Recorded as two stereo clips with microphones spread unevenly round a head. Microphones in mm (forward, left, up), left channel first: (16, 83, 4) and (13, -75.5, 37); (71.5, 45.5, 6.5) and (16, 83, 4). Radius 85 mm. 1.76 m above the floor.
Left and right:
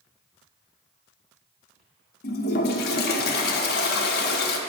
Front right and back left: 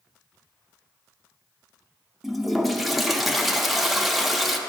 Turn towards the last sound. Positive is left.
turn(degrees=55)